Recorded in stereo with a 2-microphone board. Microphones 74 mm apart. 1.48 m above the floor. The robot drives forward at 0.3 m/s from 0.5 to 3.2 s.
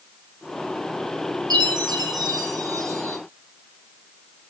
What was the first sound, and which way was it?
A chime, 60° right (ahead or behind).